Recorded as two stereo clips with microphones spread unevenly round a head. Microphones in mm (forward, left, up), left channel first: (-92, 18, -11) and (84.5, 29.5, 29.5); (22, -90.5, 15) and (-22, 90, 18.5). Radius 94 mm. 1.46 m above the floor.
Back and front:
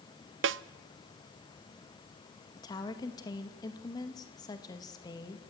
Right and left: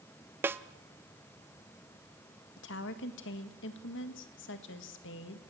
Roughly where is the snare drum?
Ahead left.